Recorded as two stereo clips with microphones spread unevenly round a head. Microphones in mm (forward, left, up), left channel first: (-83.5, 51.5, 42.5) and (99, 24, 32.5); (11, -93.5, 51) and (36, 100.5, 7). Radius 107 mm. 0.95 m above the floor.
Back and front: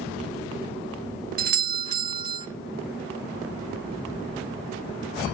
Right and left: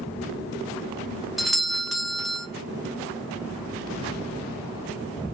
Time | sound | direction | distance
1.4 | a doorbell | 5° left | 0.9 m